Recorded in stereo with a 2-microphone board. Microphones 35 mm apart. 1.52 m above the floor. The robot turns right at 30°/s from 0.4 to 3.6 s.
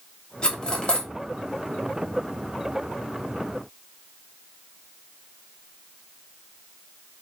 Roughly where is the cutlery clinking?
Left.